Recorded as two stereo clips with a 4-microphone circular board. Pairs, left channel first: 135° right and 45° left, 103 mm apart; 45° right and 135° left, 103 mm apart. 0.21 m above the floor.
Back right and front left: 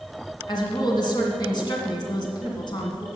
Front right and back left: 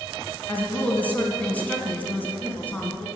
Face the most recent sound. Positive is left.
turn(degrees=-115)